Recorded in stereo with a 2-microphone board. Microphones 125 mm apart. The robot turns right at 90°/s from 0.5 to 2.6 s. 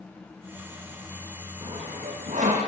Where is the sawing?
30° right (ahead or behind), 8.5 m; by 2.6 s 60° right (ahead or behind), 8.5 m.